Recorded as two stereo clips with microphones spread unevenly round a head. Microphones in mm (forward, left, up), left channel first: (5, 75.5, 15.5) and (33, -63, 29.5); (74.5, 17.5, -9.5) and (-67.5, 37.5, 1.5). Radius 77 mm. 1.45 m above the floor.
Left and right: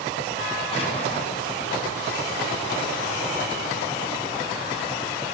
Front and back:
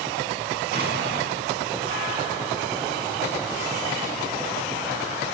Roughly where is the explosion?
Behind.